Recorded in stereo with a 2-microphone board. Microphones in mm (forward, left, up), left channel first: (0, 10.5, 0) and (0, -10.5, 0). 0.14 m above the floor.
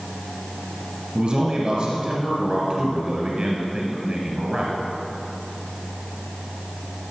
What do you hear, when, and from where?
1.1 s a man speaking: 45° right (ahead or behind), 2.0 m